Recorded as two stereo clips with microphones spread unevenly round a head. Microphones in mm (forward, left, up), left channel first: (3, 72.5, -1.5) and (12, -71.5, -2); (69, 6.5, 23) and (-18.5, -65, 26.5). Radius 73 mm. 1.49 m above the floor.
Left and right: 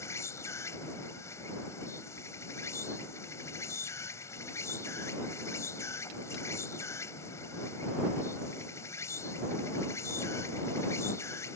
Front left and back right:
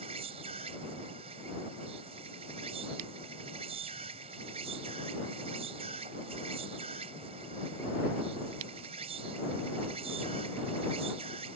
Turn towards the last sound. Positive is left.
turn(degrees=165)